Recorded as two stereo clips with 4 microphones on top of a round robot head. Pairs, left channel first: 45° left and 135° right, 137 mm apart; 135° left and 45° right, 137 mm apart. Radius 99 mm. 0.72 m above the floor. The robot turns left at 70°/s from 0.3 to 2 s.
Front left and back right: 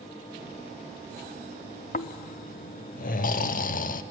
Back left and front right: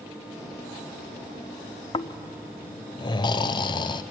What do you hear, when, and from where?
1.9 s snoring: 80° left, 0.6 m; by 4.0 s 75° left, 0.6 m